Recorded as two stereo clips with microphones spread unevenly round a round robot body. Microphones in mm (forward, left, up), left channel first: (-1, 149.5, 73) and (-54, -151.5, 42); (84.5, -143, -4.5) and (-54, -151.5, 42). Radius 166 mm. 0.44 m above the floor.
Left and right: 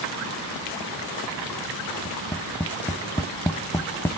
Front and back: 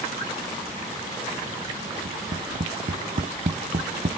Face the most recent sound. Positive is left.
turn(degrees=160)